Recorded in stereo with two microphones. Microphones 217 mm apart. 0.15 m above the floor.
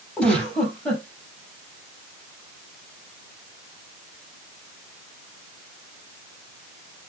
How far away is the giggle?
About 4 m.